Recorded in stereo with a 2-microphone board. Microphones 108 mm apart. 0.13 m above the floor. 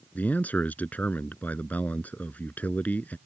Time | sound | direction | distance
0.1 | a man speaking | 15° left (ahead or behind) | ?